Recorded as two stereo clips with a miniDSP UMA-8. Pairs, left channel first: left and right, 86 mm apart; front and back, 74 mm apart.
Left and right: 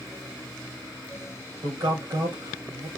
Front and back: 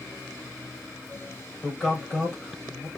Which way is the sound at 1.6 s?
80° right.